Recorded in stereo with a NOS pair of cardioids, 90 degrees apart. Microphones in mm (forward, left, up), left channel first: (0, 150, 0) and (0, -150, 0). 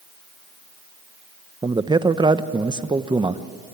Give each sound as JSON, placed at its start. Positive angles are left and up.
{"t": 1.6, "sound": "a man speaking", "azimuth_deg": -15, "distance_m": 1.1}